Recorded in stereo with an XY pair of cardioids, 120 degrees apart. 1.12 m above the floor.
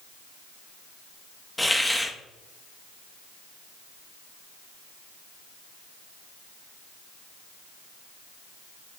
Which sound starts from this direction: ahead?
A hiss, at 1.6 s.